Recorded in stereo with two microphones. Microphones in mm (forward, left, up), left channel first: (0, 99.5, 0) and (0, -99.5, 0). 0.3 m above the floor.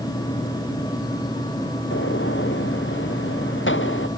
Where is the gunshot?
75° left (ahead or behind).